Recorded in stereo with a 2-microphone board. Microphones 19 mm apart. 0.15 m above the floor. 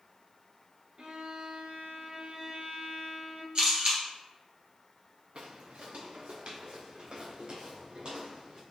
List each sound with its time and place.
1.0 s a violin: 55° right (ahead or behind), 0.9 m
3.5 s a camera shutter: 50° right (ahead or behind), 1.9 m
5.3 s footsteps: 75° right (ahead or behind), 0.8 m; by 8.6 s 55° right (ahead or behind), 4 m